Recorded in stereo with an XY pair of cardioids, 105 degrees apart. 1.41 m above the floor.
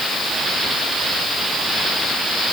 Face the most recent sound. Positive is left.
No sound to turn to.